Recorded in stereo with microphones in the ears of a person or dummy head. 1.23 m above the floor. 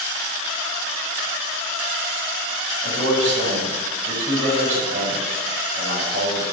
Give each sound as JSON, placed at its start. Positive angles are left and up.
{"t": 2.8, "sound": "a man speaking", "side_deg": -40, "distance_m": 6.5}